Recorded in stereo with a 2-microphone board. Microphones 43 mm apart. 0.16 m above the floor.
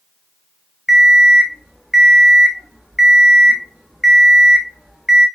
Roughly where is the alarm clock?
Centre.